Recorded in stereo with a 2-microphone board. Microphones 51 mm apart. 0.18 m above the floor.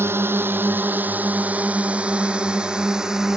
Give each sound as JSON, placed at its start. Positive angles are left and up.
{"t": 0.0, "sound": "a drone", "side_deg": -50}